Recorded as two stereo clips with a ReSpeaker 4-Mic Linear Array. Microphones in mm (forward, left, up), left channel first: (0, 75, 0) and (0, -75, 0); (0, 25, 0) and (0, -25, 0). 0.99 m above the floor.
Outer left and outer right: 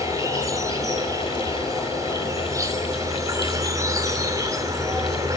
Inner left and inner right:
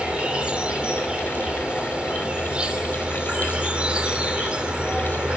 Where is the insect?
25° right (ahead or behind), 3 m.